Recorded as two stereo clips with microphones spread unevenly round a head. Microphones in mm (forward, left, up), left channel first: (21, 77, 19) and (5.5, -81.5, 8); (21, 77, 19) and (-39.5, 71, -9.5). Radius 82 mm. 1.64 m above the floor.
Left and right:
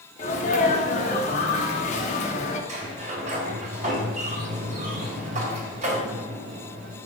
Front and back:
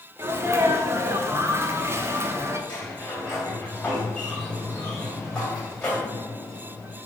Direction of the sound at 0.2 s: 135° left.